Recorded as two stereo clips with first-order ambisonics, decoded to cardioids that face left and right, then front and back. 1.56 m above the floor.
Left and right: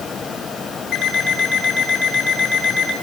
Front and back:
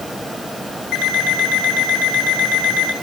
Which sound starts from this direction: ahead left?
An alarm clock, at 0.9 s.